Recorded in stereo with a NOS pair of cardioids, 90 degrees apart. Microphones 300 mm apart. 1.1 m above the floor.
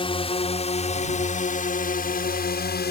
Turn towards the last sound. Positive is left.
turn(degrees=35)